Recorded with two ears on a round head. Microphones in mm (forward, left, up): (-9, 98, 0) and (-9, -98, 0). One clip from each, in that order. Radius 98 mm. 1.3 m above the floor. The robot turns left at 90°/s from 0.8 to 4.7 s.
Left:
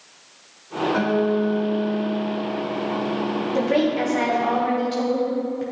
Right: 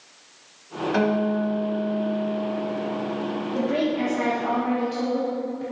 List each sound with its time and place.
0.9 s a guitar: 75° right, 1.6 m; by 3.5 s 60° left, 1.6 m
3.5 s a woman speaking: 125° left, 1.4 m; by 5.6 s 20° left, 1.4 m